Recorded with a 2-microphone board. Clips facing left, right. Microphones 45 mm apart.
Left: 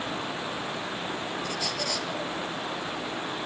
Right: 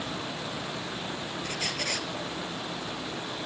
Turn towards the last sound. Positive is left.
turn(degrees=-45)  # may be behind; listen again after turning